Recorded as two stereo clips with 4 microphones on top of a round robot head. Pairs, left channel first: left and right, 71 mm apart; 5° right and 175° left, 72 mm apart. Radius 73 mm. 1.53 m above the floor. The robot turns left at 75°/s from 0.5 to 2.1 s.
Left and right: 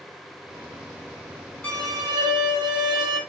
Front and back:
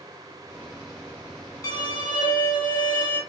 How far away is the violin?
About 0.8 m.